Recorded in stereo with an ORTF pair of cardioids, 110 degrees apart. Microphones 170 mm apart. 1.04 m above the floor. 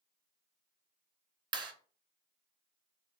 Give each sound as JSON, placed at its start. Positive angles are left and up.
{"t": 1.5, "sound": "a clap", "azimuth_deg": -25, "distance_m": 0.6}